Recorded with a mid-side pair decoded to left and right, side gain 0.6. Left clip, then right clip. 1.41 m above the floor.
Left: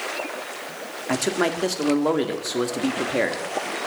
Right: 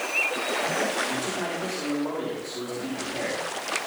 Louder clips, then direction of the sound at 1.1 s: Left 5 dB; 60° left.